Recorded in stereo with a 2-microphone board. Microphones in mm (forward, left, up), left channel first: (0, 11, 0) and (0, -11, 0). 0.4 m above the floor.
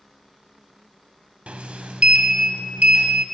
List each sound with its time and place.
1.5 s a sliding door: 70° right (ahead or behind), 0.5 m